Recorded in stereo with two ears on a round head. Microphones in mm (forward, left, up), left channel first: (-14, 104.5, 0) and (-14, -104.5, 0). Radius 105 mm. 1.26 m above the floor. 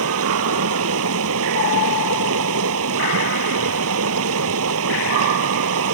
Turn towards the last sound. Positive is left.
turn(degrees=-70)  # may be behind; listen again after turning